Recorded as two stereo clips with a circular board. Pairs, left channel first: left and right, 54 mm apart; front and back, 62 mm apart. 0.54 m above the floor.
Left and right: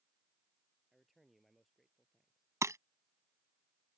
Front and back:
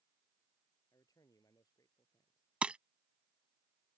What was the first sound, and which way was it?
A man speaking, straight ahead.